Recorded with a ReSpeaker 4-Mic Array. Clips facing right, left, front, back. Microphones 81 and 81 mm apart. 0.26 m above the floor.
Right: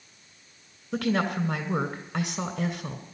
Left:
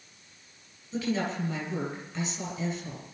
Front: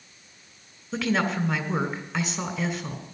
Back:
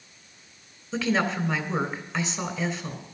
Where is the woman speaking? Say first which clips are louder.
Right 4 dB, even; 85° right, 2.5 m.